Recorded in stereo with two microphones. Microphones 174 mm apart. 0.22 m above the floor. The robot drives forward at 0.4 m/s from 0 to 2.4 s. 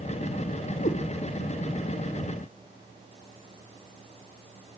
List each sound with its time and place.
0.8 s a cat meowing: 50° left (ahead or behind), 1.4 m